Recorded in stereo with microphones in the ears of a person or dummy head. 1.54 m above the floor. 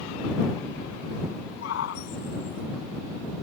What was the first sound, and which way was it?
A shout, 65° left (ahead or behind).